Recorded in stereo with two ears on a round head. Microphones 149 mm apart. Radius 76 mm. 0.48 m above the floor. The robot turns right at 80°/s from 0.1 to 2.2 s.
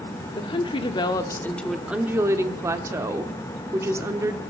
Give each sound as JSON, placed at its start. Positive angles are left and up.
{"t": 0.4, "sound": "a woman speaking", "azimuth_deg": 70, "distance_m": 1.0}